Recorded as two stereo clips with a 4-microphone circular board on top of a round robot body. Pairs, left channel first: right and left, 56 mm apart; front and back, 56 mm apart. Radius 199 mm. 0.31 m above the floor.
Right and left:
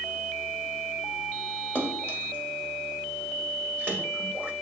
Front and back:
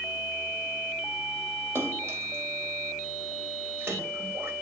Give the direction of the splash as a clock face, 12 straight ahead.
7 o'clock.